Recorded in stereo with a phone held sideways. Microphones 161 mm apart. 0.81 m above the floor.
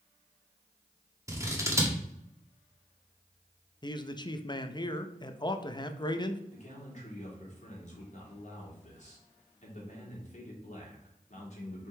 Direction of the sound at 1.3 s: 20° right (ahead or behind).